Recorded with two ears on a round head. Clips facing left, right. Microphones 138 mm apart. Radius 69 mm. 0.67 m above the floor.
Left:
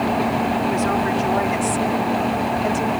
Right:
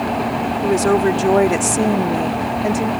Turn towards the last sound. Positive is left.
turn(degrees=-15)  # may be behind; listen again after turning